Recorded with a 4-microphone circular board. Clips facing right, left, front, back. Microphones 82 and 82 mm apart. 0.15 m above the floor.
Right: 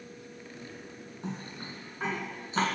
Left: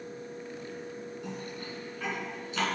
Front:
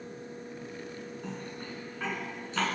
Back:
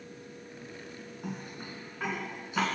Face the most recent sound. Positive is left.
turn(degrees=-110)